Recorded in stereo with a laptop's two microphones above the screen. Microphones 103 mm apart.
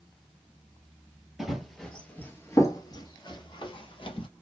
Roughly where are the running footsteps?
Centre.